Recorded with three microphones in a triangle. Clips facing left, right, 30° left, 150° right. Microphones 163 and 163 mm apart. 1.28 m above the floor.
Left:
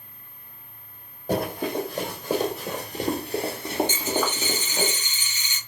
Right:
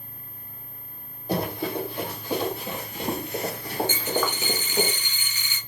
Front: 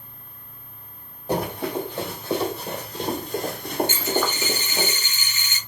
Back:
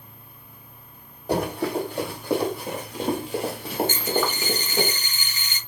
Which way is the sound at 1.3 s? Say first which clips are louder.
Left 1 dB, back 1 dB; 130° left.